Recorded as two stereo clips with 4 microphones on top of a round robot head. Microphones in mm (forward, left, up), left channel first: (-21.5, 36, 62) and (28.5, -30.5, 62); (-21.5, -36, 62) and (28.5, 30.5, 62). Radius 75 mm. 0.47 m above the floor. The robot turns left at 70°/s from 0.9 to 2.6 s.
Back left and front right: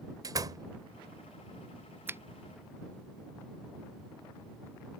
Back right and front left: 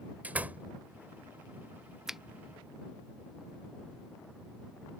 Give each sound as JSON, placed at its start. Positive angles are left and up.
{"t": 0.2, "sound": "a door slam", "azimuth_deg": -15}
{"t": 2.1, "sound": "a finger snap", "azimuth_deg": -25}